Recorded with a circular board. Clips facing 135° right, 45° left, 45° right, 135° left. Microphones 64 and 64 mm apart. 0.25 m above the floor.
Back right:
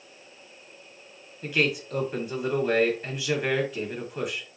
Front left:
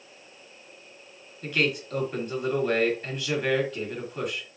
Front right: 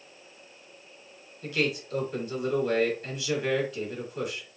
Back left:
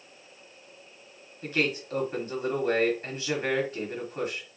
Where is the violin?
No violin in this recording.